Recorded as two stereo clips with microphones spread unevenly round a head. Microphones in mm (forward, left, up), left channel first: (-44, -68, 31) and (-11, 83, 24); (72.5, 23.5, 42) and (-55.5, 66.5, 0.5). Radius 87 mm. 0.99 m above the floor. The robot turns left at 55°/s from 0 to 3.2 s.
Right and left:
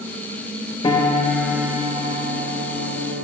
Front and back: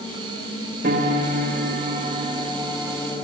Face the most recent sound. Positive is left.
turn(degrees=65)